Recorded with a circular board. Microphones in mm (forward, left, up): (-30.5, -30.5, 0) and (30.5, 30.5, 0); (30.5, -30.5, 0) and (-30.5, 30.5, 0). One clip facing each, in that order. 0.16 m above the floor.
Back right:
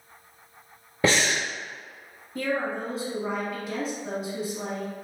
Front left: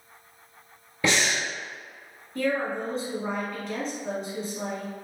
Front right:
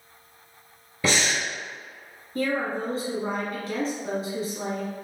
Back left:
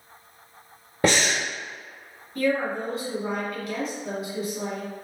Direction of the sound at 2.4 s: 60° right.